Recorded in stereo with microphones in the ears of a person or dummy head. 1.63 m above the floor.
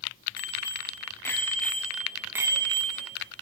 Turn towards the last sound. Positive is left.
turn(degrees=-35)  # may be behind; listen again after turning